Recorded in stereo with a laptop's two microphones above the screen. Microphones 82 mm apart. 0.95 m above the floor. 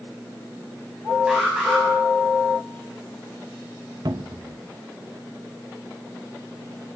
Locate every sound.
1.3 s an alarm: 10° right (ahead or behind), 7 m
4.0 s a cupboard door: 60° right (ahead or behind), 0.9 m